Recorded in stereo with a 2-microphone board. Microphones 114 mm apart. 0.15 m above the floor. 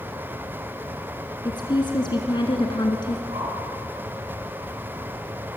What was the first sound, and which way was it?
A woman speaking, 45° left (ahead or behind).